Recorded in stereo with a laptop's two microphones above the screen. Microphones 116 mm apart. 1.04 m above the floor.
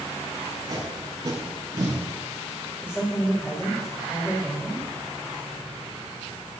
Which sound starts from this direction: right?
Tape being pulled, at 0.4 s.